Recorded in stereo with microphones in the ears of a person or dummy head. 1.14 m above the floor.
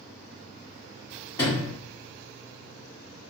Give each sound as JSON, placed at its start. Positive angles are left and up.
{"t": 1.4, "sound": "a sliding door", "side_deg": 15, "distance_m": 1.3}